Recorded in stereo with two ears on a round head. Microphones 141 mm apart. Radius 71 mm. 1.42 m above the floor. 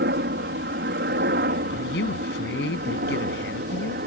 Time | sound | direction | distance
0.0 | a helicopter | 65° right (ahead or behind) | ?
1.7 | a woman speaking | 75° left (ahead or behind) | ?